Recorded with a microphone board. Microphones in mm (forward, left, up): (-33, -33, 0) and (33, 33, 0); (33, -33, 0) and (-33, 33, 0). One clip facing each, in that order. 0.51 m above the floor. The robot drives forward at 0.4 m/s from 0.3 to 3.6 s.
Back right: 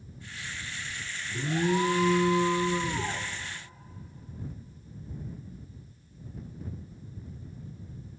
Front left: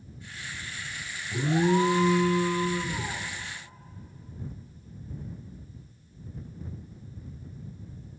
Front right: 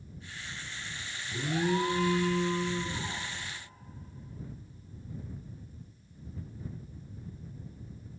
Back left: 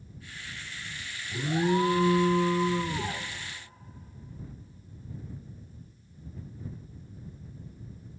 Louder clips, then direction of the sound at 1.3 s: Front left 4 dB, back left 3 dB; 55° left.